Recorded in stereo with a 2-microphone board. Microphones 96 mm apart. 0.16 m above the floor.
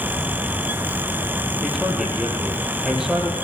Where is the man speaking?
5° right (ahead or behind), 6 m.